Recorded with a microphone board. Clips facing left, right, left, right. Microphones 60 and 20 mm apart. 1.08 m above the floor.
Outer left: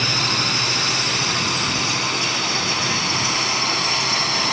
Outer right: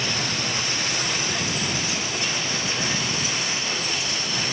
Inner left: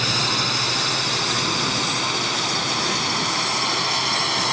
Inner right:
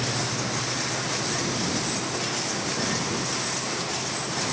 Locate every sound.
0.0 s a drone: 70° left (ahead or behind); by 4.5 s 75° left (ahead or behind)